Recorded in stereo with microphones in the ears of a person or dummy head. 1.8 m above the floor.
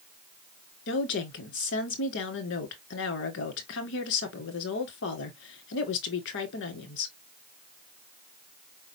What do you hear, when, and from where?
0.9 s a woman speaking: 65° left (ahead or behind), 1.9 m